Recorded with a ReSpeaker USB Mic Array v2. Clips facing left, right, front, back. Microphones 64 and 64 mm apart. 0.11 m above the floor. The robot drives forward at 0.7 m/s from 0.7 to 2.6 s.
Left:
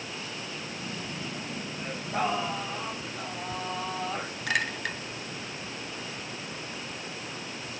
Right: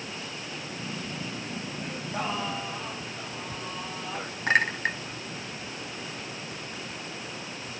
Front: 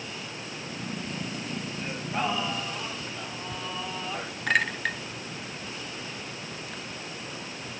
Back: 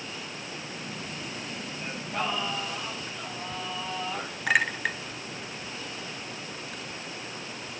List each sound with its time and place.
1.8 s singing: 70° left, 3.5 m; by 4.3 s 80° left, 3.5 m
4.5 s a clink: 100° right, 0.8 m